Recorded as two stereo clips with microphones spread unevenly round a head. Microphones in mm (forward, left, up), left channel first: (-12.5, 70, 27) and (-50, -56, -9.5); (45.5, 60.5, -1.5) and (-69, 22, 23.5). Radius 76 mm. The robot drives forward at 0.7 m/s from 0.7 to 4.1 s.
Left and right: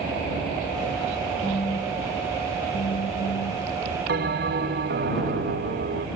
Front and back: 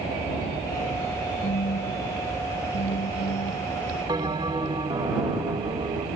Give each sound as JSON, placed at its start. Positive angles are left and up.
{"t": 1.4, "sound": "a phone buzzing", "azimuth_deg": 30}
{"t": 4.1, "sound": "a bell", "azimuth_deg": -95}